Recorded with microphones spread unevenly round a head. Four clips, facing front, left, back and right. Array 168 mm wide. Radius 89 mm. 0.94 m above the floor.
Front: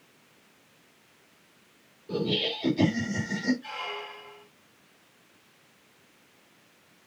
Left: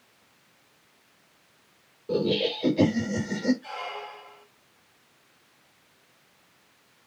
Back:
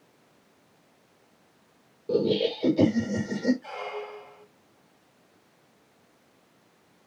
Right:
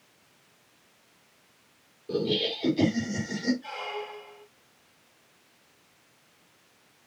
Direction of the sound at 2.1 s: 165° left.